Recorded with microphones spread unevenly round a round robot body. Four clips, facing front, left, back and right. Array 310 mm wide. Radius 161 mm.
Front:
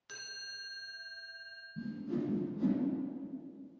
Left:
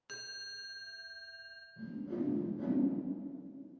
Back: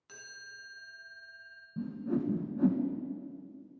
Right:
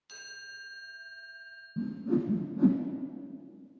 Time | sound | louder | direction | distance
0.1 | a chime | right 2 dB, front 1 dB | 60° left | 1.4 m
1.8 | a whoosh | right 9 dB, back 4 dB | 115° right | 0.9 m